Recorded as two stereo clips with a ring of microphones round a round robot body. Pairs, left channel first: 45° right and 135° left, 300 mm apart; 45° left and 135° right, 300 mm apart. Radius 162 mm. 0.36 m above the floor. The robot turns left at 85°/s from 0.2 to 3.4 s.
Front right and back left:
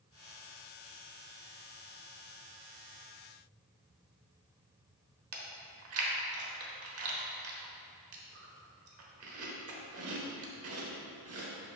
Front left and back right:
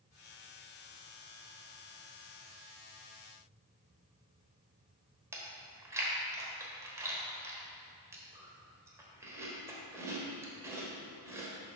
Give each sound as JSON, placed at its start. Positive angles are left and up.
{"t": 5.3, "sound": "chewing", "azimuth_deg": 145, "distance_m": 1.2}